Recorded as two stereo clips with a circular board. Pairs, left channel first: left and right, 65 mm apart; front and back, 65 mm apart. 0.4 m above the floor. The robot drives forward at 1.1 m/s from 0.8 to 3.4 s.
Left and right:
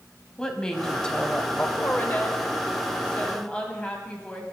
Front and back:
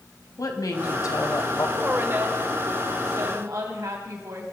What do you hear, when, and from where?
0.4 s a woman speaking: 10° left, 2 m; by 1.7 s 20° left, 1.3 m
1.8 s a woman speaking: 130° left, 1.7 m; by 4.4 s 160° left, 3 m